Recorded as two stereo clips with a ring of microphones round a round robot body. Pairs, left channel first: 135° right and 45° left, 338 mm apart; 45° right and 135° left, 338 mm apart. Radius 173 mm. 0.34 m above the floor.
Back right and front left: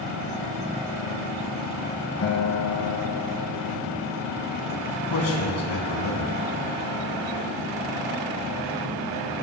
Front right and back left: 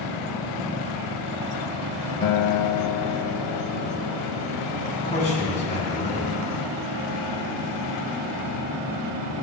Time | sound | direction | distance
2.2 | a guitar | 80° right | 0.8 m
4.9 | a man speaking | 115° right | 4 m